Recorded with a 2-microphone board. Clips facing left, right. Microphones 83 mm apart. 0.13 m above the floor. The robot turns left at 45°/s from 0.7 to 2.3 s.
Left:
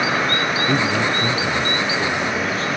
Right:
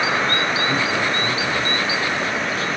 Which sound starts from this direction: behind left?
A man speaking, at 0.7 s.